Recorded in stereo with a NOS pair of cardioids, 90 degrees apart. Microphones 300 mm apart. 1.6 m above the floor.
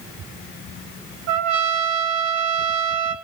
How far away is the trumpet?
About 2.5 m.